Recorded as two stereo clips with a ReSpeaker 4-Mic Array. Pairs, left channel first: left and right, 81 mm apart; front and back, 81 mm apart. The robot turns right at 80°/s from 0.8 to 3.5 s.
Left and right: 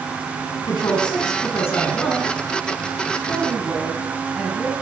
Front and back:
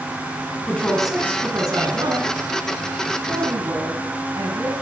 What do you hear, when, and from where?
0.7 s a woman speaking: 75° left, 4 m; by 2.3 s 165° right, 4 m
3.3 s a woman speaking: 170° left, 2.5 m; by 4.7 s 175° right, 2.5 m